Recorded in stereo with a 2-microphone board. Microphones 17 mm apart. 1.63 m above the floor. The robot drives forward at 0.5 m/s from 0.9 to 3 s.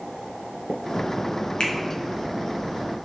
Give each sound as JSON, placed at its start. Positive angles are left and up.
{"t": 1.6, "sound": "a finger snap", "side_deg": 65, "distance_m": 0.6}